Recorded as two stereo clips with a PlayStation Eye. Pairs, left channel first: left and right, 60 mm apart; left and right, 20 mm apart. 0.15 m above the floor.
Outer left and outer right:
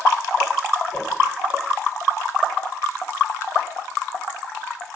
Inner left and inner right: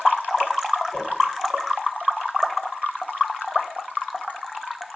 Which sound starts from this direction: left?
A whoosh, at 0.9 s.